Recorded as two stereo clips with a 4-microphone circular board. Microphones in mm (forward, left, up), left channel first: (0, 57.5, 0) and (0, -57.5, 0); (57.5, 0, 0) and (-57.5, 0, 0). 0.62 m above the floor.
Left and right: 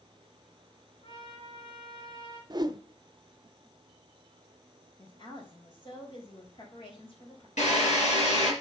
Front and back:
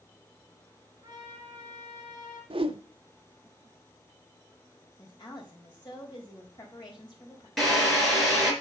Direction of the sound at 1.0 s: 125° left.